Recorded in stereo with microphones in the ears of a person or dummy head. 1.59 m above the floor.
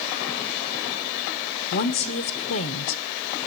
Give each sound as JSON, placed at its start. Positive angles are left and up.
{"t": 1.7, "sound": "a woman speaking", "side_deg": 55, "distance_m": 0.6}